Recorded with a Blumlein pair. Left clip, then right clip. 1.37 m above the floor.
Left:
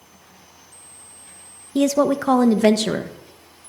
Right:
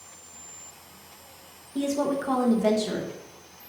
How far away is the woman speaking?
About 0.7 m.